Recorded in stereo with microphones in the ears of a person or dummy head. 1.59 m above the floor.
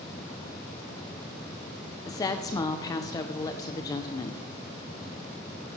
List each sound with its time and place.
2.1 s a woman speaking: 20° left (ahead or behind), 0.6 m